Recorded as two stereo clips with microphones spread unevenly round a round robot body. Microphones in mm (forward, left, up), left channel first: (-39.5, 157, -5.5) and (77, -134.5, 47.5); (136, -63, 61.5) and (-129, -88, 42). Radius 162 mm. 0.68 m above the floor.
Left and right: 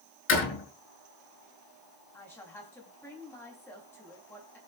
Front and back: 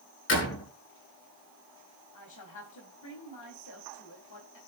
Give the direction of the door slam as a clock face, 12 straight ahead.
10 o'clock.